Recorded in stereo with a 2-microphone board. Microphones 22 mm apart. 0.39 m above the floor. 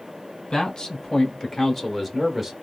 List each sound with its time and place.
0.5 s a man speaking: 35° left (ahead or behind), 1.1 m; by 2.5 s 15° right (ahead or behind), 1.1 m